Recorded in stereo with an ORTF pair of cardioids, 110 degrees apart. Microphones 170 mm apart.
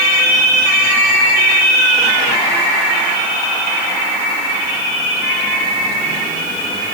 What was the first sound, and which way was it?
Only background noise.